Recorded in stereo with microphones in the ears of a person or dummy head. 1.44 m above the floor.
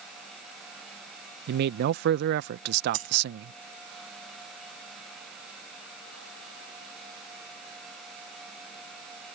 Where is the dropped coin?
45° right (ahead or behind).